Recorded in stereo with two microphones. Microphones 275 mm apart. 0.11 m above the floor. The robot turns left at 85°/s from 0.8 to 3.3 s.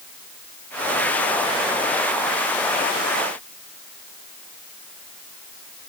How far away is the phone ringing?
No phone ringing in this recording.